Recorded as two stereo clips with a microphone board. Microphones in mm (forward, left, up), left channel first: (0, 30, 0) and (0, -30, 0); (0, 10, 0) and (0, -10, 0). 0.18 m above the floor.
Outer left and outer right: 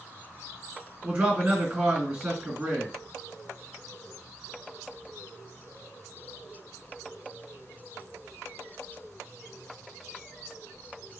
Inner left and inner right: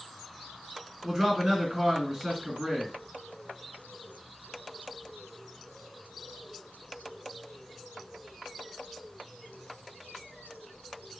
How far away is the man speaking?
About 2 m.